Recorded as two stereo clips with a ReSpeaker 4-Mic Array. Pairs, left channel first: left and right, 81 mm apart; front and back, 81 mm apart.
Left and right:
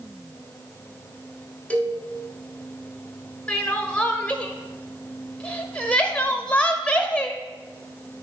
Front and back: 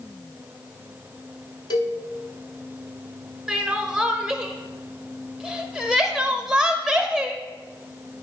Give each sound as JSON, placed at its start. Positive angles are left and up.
{"t": 1.7, "sound": "a cowbell", "azimuth_deg": 20, "distance_m": 1.0}
{"t": 3.5, "sound": "crying", "azimuth_deg": 120, "distance_m": 0.8}